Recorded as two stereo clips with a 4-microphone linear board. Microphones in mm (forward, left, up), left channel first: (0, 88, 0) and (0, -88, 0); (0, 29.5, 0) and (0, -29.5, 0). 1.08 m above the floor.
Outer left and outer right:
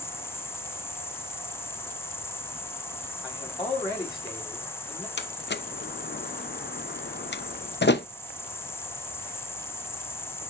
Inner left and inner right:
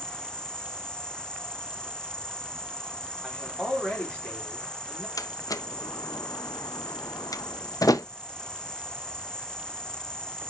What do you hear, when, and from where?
0.0 s an insect: 15° left (ahead or behind), 1.0 m
3.2 s a man speaking: 25° left (ahead or behind), 4 m
5.2 s a door slam: 85° left, 0.7 m